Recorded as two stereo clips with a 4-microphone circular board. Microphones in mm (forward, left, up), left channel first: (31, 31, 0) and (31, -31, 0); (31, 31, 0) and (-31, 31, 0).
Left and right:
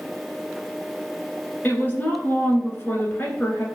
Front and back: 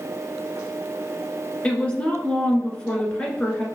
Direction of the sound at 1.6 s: 55° left.